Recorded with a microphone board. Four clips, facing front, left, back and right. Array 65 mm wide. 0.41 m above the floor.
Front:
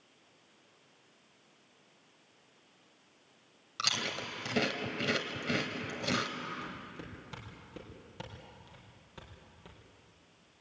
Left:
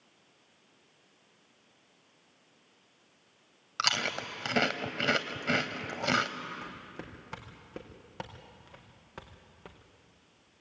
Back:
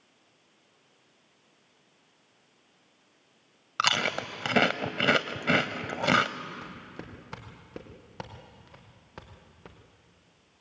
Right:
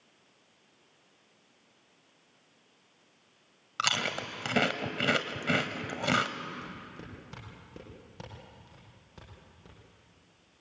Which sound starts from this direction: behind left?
Footsteps, at 6.6 s.